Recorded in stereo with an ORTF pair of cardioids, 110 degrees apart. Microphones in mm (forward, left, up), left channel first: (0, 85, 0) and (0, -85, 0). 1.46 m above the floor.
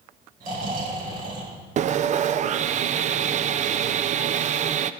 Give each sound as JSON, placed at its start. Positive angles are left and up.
{"t": 0.4, "sound": "snoring", "azimuth_deg": -60, "distance_m": 5.5}
{"t": 1.8, "sound": "sawing", "azimuth_deg": -45, "distance_m": 0.5}